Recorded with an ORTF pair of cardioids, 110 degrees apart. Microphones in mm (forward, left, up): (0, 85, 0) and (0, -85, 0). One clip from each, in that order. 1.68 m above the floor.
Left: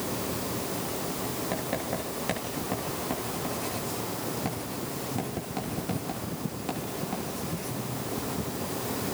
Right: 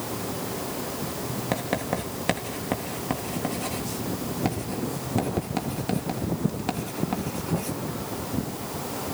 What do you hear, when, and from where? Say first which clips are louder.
1.5 s writing: right 6 dB; 40° right, 3.5 m